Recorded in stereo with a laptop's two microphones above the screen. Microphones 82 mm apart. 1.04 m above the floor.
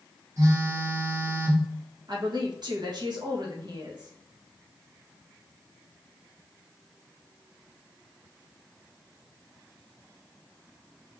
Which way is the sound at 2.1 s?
65° right (ahead or behind).